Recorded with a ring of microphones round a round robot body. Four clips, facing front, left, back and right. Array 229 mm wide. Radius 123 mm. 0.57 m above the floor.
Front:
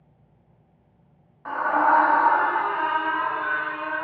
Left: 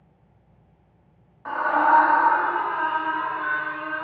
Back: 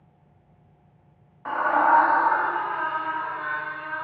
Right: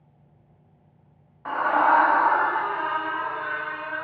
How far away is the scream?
About 0.9 m.